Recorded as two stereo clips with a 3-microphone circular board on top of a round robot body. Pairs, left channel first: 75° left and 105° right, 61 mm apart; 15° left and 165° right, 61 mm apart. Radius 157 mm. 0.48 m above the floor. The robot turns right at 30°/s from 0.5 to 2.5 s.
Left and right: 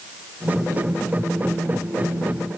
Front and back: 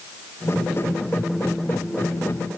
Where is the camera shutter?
I don't hear a camera shutter.